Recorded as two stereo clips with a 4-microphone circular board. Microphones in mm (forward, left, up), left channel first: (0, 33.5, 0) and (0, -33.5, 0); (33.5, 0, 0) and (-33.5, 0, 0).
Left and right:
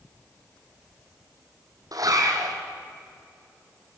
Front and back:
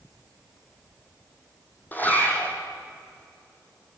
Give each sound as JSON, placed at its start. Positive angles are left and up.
{"t": 1.9, "sound": "a zipper", "azimuth_deg": -65, "distance_m": 3.5}